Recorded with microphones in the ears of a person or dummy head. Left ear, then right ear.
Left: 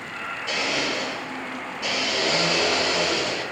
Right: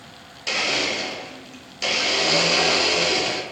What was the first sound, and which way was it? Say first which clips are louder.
A blender: right 3 dB; 55° right (ahead or behind).